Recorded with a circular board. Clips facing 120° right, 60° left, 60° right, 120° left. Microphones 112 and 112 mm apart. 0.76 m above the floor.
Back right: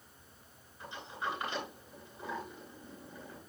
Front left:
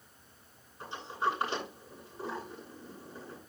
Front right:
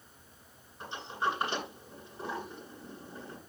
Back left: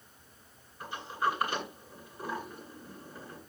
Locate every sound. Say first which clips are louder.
0.8 s a sliding door: front left 7 dB, back left 2 dB; 5° left, 9 m